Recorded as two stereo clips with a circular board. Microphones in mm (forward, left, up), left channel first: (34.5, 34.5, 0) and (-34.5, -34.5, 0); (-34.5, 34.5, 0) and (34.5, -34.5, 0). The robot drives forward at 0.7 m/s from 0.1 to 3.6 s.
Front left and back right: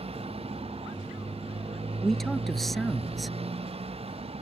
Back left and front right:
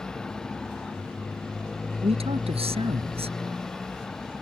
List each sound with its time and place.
0.0 s a motorcycle: 140° right
2.0 s a man speaking: 40° right; by 3.4 s 45° right